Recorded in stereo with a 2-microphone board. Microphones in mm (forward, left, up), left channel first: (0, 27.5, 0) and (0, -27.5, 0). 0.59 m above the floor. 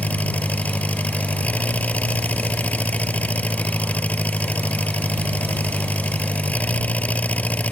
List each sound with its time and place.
0.0 s an engine running: 25° left (ahead or behind)